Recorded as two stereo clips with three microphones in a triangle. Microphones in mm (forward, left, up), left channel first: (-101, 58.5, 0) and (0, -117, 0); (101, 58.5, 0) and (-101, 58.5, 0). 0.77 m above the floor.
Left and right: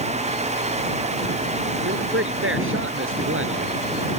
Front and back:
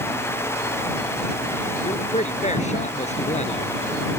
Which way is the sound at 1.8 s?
55° right.